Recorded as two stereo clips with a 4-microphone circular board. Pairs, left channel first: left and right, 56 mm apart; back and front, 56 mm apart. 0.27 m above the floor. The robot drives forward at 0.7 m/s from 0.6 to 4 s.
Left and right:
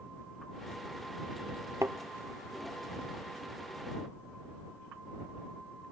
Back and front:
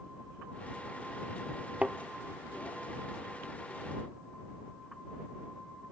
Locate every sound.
1.8 s a thud: 65° right, 0.6 m; by 2.0 s 75° right, 0.6 m